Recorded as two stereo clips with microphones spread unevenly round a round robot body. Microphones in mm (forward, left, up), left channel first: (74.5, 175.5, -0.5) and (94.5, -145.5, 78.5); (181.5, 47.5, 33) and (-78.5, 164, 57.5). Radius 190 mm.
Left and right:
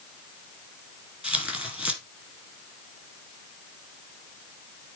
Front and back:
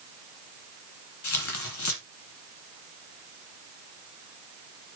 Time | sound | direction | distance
1.2 | tearing paper | straight ahead | 2.5 m